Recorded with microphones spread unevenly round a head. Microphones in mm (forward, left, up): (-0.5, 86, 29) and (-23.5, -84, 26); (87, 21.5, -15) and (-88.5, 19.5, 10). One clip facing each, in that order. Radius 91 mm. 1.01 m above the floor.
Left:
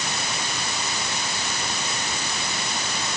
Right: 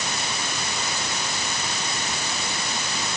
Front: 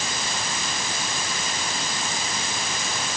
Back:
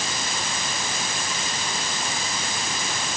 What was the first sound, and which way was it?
Only background noise.